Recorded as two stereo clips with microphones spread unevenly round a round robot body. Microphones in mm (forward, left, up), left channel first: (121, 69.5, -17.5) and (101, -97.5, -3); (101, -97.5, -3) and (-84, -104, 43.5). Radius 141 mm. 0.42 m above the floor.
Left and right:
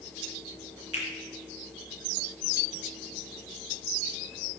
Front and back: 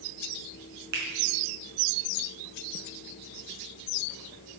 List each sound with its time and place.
0.9 s a finger snap: 165° right, 4.5 m